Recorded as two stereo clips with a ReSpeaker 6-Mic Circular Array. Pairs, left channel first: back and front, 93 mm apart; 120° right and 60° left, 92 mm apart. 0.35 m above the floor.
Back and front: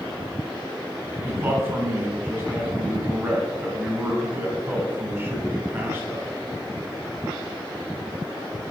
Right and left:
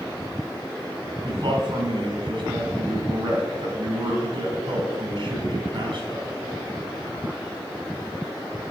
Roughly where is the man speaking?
Ahead left.